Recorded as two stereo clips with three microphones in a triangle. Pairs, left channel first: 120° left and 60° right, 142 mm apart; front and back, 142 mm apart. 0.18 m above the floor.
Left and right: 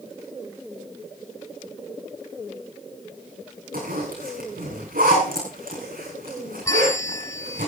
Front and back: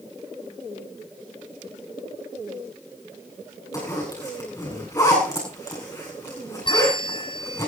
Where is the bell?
55° left, 1.0 m.